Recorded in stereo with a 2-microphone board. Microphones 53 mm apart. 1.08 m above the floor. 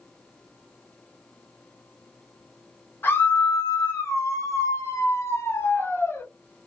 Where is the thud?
No thud in this recording.